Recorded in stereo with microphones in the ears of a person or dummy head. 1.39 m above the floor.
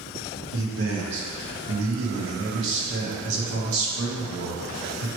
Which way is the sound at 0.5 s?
65° right (ahead or behind).